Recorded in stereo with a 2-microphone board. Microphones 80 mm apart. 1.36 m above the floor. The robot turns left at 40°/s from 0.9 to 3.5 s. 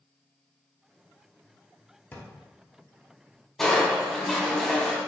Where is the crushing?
5° left (ahead or behind), 1.2 m.